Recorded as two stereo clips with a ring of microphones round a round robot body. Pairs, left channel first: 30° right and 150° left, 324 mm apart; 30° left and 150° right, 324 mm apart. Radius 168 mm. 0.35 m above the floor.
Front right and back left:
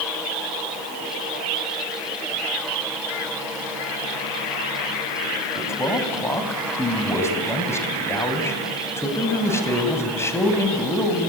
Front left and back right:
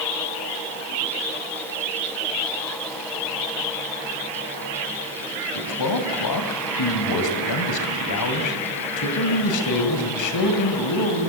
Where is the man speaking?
50° left, 2.5 m.